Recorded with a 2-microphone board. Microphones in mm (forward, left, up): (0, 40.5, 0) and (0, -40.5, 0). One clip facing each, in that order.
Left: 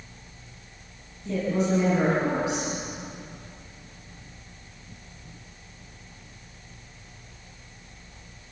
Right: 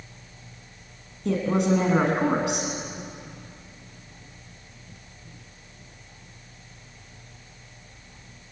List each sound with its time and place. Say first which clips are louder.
1.2 s a woman speaking: right 3 dB; 85° right, 6 m